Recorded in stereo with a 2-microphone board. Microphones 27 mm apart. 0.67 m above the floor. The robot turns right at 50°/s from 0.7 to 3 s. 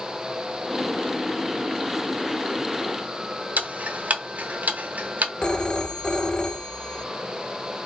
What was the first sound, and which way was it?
Ticking, 75° right (ahead or behind).